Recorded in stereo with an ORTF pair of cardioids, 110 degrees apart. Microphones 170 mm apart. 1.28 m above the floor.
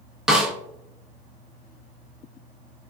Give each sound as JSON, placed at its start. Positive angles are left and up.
{"t": 0.3, "sound": "a snare drum", "azimuth_deg": -5, "distance_m": 0.7}